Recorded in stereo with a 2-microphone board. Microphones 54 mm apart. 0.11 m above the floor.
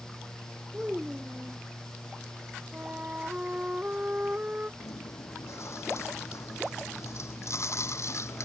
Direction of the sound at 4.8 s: 60° left (ahead or behind).